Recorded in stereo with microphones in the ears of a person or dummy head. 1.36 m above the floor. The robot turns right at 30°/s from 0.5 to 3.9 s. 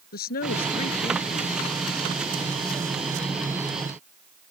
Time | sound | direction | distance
0.1 | a woman speaking | 125° left | ?